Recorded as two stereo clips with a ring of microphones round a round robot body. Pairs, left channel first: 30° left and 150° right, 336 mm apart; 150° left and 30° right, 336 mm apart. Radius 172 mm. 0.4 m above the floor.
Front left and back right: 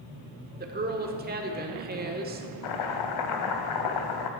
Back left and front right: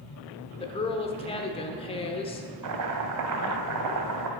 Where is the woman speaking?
155° right, 1.0 m.